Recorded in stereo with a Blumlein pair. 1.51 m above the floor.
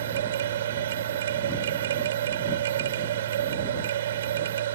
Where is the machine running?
60° right.